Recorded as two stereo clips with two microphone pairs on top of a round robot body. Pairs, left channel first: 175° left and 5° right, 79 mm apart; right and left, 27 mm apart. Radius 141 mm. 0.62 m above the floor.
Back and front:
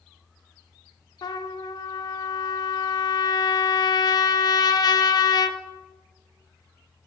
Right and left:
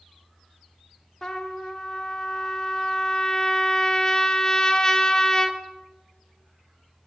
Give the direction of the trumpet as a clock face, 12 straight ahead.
5 o'clock.